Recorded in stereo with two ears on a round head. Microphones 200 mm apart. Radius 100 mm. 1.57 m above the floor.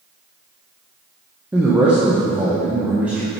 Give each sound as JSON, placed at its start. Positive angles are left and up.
{"t": 1.5, "sound": "a man speaking", "side_deg": -5, "distance_m": 1.0}